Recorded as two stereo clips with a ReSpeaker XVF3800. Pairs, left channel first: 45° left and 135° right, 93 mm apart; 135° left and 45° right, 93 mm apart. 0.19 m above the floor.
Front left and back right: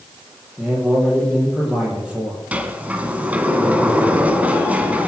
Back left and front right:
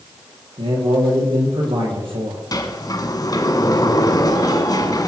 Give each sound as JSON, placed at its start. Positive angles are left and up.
{"t": 0.6, "sound": "a man speaking", "azimuth_deg": -60, "distance_m": 6.5}
{"t": 2.5, "sound": "a sliding door", "azimuth_deg": 155, "distance_m": 1.5}